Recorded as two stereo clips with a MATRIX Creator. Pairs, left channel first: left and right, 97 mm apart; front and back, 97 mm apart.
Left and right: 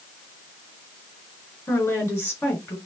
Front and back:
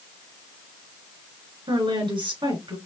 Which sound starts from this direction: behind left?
A woman speaking, at 1.7 s.